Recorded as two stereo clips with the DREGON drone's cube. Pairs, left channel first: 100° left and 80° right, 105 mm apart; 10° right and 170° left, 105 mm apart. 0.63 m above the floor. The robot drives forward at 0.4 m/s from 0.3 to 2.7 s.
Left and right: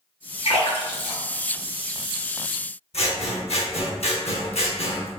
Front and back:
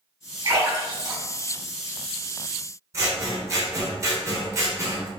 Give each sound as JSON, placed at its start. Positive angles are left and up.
{"t": 0.5, "sound": "a splash", "azimuth_deg": 120, "distance_m": 1.9}
{"t": 2.9, "sound": "scissors", "azimuth_deg": 110, "distance_m": 0.6}